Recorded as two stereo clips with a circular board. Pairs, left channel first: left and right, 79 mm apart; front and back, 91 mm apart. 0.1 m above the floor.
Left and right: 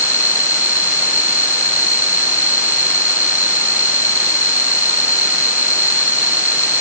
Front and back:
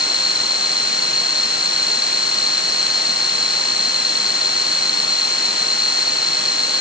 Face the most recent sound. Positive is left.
turn(degrees=40)